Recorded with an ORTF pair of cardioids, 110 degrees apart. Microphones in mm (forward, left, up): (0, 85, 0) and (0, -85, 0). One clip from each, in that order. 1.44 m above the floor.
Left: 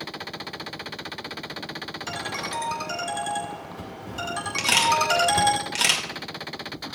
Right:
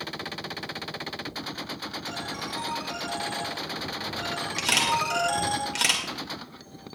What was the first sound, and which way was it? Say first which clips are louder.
A ringtone: left 4 dB; 55° left.